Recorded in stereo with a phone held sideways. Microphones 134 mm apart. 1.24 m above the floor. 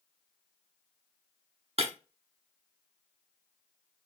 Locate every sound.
1.8 s breaking glass: 50° right (ahead or behind), 0.9 m